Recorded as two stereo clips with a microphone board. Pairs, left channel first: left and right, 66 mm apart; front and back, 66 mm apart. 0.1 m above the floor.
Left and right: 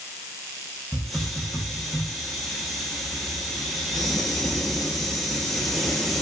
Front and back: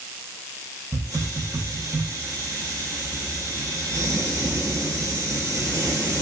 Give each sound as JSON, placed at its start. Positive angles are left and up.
{"t": 0.9, "sound": "a hiss", "azimuth_deg": -175, "distance_m": 1.0}